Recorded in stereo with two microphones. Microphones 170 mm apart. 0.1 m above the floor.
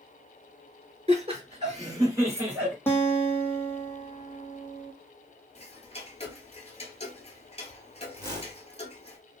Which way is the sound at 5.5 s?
40° left (ahead or behind).